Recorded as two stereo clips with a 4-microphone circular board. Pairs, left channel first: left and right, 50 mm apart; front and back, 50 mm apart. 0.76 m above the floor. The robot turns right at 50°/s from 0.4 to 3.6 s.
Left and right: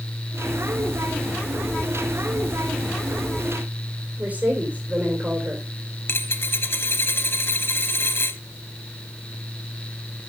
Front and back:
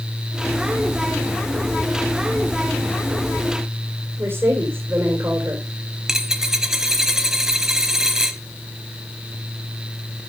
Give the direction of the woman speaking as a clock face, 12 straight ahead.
5 o'clock.